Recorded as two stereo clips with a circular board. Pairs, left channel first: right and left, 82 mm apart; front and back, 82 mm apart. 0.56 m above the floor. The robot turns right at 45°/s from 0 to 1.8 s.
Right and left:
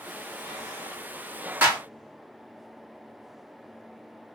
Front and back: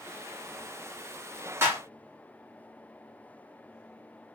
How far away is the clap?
About 1.0 m.